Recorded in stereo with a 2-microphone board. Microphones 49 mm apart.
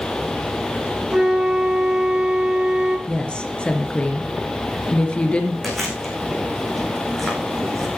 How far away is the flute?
About 2 m.